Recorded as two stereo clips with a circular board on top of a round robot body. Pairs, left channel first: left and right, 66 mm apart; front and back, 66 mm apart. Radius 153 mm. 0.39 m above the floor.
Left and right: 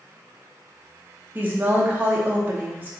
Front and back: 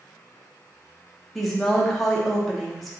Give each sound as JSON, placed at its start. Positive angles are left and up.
{"t": 1.4, "sound": "a woman speaking", "azimuth_deg": -80, "distance_m": 0.9}